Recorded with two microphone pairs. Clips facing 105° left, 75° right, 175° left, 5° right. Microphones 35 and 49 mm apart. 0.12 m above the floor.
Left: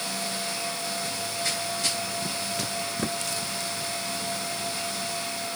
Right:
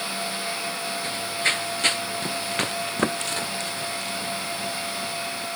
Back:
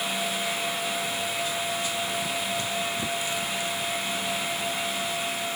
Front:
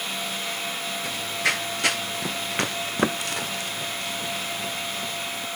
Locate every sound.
1.0 s running footsteps: 30° right; by 5.5 s 40° right